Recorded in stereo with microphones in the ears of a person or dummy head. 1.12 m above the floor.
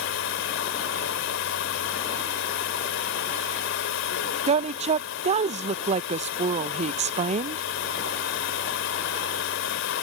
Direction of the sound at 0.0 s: 75° left (ahead or behind).